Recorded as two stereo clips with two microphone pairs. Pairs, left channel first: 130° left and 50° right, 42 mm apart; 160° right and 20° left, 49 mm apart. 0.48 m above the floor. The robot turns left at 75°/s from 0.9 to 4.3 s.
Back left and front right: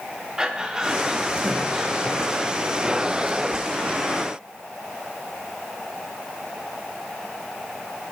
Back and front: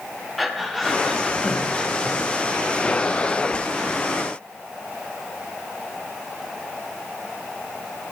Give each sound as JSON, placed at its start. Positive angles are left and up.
{"t": 0.4, "sound": "breathing", "azimuth_deg": -75, "distance_m": 0.9}